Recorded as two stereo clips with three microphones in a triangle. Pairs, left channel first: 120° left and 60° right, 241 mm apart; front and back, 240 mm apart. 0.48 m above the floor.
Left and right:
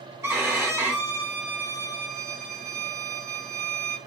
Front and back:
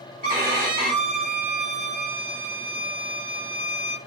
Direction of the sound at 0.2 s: 135° right.